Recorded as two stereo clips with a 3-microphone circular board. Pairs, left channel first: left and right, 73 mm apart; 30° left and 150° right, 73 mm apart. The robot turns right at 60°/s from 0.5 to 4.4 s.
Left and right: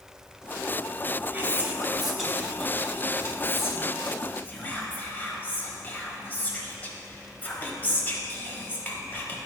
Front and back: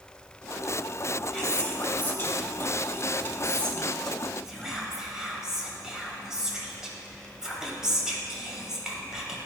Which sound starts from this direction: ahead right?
Whispering, at 1.3 s.